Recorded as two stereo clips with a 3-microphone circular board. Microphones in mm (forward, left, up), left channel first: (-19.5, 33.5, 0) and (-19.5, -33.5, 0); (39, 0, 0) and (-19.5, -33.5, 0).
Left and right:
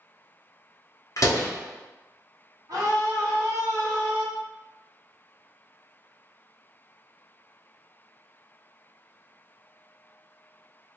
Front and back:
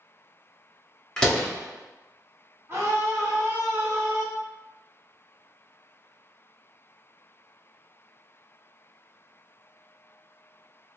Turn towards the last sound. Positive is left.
turn(degrees=-100)